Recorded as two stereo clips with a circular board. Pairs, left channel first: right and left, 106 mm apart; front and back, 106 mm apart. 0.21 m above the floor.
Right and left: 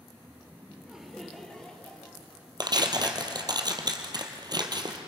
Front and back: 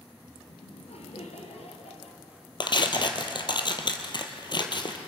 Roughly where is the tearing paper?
Ahead left.